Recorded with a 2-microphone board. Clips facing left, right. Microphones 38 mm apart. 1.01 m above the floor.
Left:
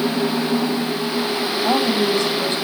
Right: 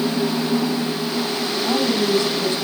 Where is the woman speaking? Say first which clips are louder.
Left 1 dB; 60° left (ahead or behind), 8.5 m.